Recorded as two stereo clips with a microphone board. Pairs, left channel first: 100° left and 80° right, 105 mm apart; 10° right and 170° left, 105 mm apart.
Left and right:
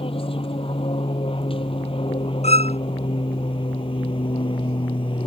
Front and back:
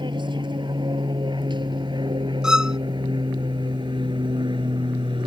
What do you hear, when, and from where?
0.0 s an aircraft: 130° left
2.4 s a violin: 85° left